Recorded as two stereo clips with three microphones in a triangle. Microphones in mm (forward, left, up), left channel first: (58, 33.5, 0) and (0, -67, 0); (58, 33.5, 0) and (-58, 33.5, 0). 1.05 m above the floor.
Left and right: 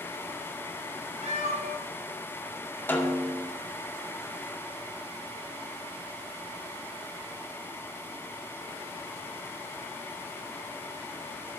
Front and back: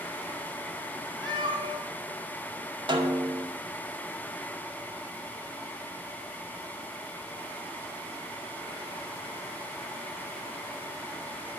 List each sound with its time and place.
1.2 s a cat meowing: 130° right, 3 m
2.9 s a snare drum: 130° left, 1.9 m